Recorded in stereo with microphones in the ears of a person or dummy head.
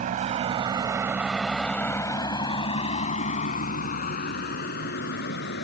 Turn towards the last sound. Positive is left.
turn(degrees=60)  # may be behind; listen again after turning